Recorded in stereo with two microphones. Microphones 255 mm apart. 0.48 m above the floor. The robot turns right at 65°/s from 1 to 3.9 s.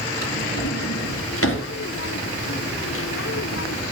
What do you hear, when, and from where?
0.2 s a drawer: 90° left, 2 m; by 1.7 s 45° left (ahead or behind), 2 m